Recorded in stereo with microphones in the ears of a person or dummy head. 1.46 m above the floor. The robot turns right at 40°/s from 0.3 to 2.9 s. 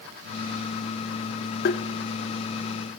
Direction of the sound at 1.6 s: 45° left (ahead or behind).